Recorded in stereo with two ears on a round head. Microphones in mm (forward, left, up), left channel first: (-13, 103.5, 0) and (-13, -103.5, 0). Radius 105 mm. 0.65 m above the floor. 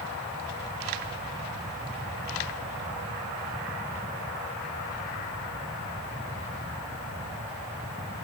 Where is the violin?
I don't hear a violin.